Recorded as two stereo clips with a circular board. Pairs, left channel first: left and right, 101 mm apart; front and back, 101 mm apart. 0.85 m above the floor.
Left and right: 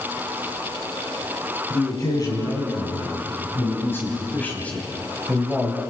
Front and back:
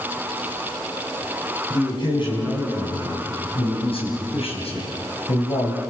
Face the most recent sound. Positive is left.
turn(degrees=0)